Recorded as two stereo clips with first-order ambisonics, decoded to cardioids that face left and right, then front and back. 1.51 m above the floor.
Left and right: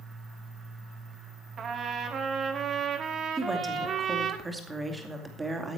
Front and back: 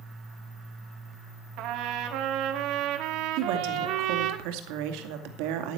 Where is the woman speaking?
170° right, 2 m.